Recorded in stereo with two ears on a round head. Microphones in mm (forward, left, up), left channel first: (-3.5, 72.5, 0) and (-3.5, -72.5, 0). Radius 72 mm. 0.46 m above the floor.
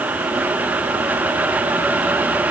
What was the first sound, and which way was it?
Only background noise.